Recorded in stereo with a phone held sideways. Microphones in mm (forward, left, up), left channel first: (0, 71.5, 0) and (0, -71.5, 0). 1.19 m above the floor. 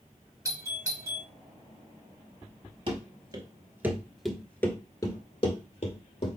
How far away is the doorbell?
About 1.1 m.